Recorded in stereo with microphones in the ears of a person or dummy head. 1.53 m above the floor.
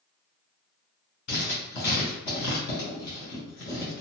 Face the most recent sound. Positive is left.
turn(degrees=40)  # may be behind; listen again after turning